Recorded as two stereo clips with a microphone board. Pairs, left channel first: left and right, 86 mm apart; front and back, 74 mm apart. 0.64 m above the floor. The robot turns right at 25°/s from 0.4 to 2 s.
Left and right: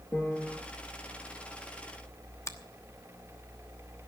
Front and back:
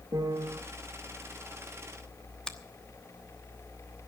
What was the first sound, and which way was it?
A piano, 155° left.